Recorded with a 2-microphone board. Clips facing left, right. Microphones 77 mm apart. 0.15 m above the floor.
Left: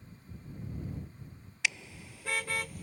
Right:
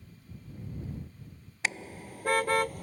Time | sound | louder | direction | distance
1.6 | a car horn | right 2 dB | 40° right (ahead or behind) | ?